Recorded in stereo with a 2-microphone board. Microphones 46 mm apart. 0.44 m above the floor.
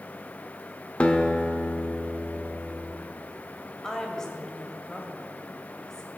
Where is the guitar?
30° left (ahead or behind), 1.1 m.